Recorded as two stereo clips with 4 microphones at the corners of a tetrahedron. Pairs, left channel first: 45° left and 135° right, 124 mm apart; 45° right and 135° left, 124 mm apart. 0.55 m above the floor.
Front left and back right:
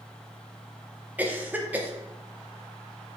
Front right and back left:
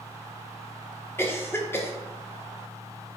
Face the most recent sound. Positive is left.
turn(degrees=-75)